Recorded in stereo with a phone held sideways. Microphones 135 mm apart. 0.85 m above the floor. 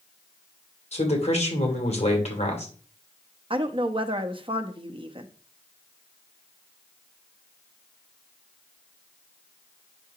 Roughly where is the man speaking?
Left.